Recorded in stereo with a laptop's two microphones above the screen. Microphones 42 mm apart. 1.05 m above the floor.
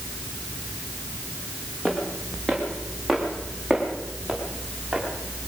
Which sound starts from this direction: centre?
Footsteps, at 1.9 s.